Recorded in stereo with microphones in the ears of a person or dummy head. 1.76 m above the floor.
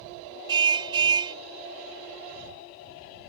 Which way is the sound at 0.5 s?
25° right (ahead or behind).